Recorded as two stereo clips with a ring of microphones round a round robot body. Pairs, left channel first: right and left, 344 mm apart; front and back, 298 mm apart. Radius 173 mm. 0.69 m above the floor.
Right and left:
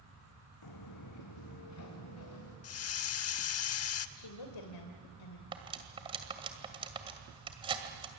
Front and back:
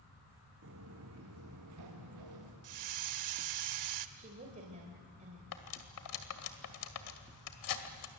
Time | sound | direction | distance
0.6 | footsteps | 125° right | 2.5 m
2.6 | a hiss | 140° right | 0.8 m
4.2 | a woman speaking | 110° right | 2.5 m
5.5 | cutlery clinking | 15° left | 2 m